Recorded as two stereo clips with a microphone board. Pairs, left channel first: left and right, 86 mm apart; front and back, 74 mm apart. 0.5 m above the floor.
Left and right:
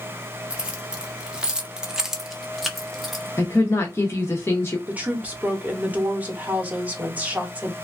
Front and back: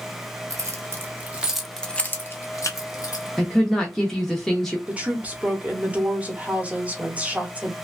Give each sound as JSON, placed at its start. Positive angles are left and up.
{"t": 0.5, "sound": "keys jangling", "azimuth_deg": -165, "distance_m": 0.8}
{"t": 3.4, "sound": "a woman speaking", "azimuth_deg": 80, "distance_m": 0.8}
{"t": 4.9, "sound": "a woman speaking", "azimuth_deg": -135, "distance_m": 0.8}